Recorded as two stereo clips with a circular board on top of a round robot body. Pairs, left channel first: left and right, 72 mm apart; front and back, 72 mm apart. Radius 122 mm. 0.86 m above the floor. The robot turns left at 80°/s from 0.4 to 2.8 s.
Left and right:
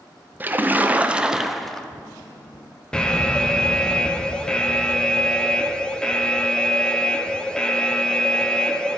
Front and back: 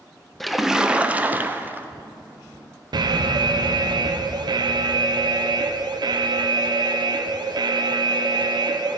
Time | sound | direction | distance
0.4 | a splash | 85° right | 0.6 m
2.9 | an alarm | 170° left | 0.6 m